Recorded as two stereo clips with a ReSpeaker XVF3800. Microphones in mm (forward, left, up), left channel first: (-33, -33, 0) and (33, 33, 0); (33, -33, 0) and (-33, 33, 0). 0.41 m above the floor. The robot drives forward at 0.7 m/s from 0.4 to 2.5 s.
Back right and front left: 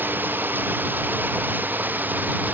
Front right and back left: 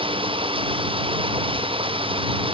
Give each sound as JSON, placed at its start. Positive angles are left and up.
{"t": 0.0, "sound": "running water", "azimuth_deg": 115}